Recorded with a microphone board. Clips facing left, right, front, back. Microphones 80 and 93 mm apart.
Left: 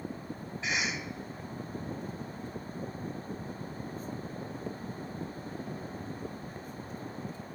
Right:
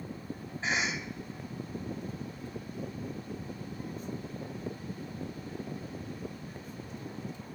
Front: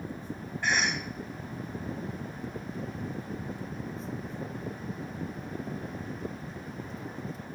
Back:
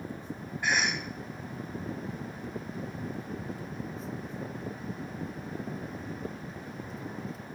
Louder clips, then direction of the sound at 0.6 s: Right 2 dB, even; 100° right.